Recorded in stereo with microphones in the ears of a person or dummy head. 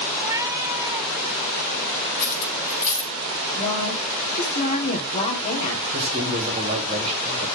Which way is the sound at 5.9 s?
35° right (ahead or behind).